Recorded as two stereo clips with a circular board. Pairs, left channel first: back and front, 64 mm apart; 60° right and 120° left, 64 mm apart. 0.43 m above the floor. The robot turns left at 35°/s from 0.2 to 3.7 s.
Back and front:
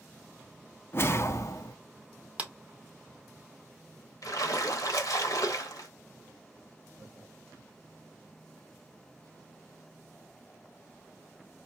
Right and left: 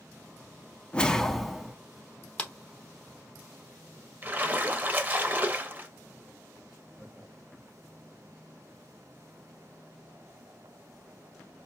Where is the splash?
Straight behind, 0.8 m.